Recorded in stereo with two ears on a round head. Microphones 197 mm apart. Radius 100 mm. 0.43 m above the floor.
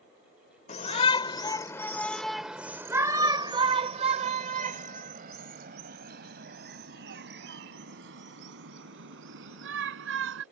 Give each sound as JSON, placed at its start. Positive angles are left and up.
{"t": 0.7, "sound": "a shout", "side_deg": 35}